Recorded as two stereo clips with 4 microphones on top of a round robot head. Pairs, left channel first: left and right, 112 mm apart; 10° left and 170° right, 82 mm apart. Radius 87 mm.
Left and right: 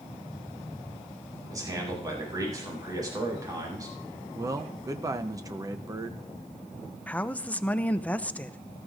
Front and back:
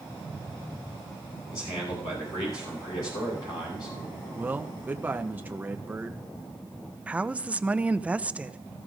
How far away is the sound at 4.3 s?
About 0.7 m.